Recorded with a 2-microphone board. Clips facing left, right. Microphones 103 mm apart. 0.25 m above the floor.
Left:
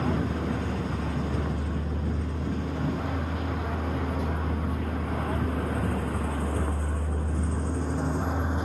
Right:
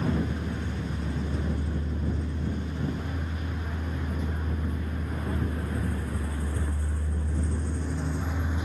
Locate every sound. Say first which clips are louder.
0.0 s a vehicle: left 1 dB; 85° left; by 8.7 s 40° left (ahead or behind)